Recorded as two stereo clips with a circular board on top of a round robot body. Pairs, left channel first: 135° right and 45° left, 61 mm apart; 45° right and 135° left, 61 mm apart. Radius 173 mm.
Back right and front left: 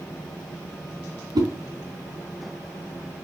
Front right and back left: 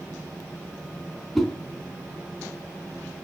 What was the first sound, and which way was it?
A whoosh, 45° left.